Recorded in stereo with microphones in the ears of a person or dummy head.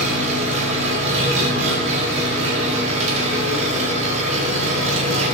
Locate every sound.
0.0 s an engine running: 40° right (ahead or behind), 1.4 m